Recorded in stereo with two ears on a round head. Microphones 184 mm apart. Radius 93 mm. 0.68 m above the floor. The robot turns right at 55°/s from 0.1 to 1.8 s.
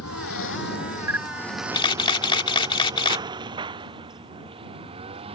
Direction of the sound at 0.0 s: 80° left.